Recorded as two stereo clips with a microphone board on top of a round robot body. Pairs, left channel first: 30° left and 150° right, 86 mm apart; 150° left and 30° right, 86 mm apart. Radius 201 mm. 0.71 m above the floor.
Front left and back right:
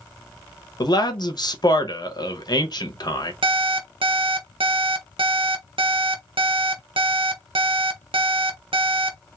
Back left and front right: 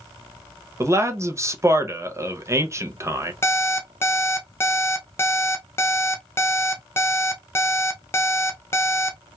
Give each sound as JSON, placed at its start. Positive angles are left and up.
{"t": 0.8, "sound": "a man speaking", "azimuth_deg": 15, "distance_m": 0.9}
{"t": 3.4, "sound": "an alarm clock", "azimuth_deg": -150, "distance_m": 0.7}